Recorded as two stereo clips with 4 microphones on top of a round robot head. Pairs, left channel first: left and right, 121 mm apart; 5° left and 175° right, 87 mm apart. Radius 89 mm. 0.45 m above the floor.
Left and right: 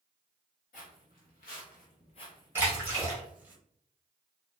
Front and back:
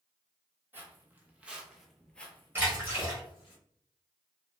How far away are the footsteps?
About 1.0 m.